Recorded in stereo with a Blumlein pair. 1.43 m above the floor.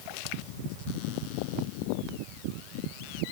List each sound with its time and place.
Only background noise.